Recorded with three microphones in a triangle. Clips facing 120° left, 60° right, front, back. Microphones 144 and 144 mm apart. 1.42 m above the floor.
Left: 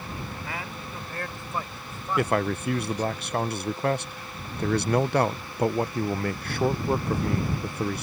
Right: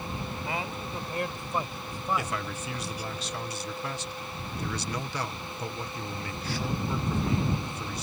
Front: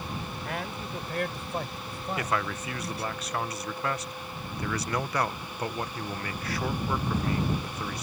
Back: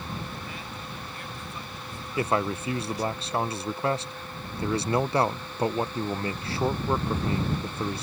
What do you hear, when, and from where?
0.5 s a man speaking: 5° left; by 3.1 s 20° left
2.2 s a man speaking: 125° left